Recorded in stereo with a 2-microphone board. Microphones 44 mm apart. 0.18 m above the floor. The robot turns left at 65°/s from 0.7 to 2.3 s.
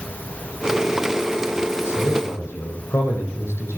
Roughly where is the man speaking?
Behind left.